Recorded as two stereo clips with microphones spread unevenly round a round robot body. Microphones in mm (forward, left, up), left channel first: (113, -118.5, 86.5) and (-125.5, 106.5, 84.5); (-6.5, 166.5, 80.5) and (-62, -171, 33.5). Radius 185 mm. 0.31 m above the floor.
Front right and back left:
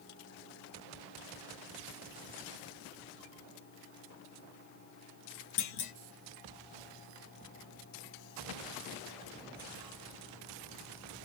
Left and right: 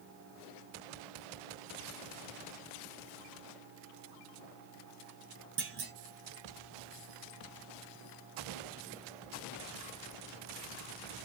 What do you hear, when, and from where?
5.6 s a clunk: 40° right, 0.9 m